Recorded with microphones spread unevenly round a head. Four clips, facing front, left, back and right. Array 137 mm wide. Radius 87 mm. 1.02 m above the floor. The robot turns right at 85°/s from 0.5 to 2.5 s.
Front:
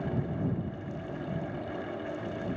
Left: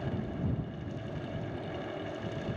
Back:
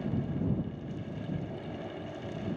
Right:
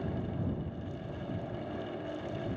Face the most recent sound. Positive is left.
No sound to turn to.